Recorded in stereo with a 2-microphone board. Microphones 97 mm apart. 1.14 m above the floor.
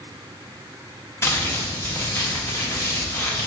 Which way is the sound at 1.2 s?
25° left (ahead or behind).